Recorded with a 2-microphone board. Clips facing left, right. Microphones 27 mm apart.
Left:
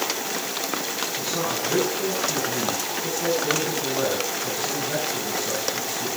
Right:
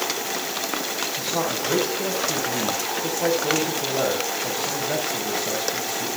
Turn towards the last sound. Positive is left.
turn(degrees=-50)  # may be behind; listen again after turning